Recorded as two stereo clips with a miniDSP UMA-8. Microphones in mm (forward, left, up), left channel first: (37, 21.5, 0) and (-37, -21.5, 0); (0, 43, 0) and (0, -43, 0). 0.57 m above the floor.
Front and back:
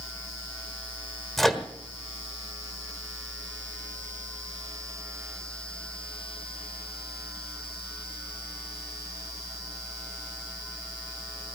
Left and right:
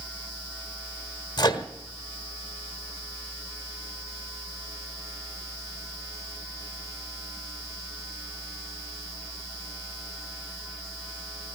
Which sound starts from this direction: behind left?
A microwave, at 1.4 s.